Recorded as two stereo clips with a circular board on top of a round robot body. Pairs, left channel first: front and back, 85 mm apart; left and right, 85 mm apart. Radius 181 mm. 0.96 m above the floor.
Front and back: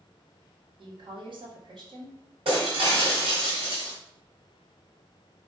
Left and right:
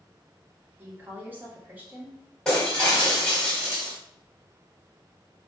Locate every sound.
0.8 s a woman speaking: 160° right, 1.6 m
2.5 s breaking glass: 175° left, 1.4 m